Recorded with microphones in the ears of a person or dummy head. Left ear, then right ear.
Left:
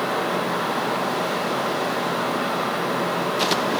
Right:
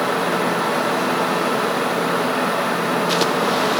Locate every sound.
0.0 s a fan: 40° right (ahead or behind), 1.0 m